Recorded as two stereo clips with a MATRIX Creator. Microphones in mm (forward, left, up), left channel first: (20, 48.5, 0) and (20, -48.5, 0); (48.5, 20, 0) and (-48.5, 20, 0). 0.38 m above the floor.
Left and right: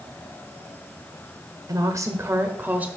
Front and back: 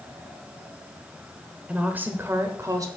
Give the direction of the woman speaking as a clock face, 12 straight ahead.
4 o'clock.